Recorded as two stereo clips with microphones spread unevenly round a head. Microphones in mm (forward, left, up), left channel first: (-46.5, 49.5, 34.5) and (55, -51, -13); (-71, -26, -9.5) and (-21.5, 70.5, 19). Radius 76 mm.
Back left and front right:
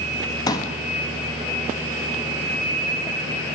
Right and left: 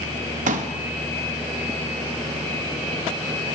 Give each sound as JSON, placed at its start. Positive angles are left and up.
{"t": 0.5, "sound": "a pop", "azimuth_deg": 65, "distance_m": 1.4}